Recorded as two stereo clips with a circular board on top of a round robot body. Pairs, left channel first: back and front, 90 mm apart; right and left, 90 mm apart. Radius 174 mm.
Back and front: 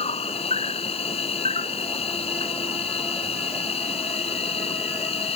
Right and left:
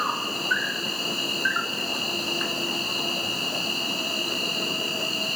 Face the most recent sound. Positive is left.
turn(degrees=180)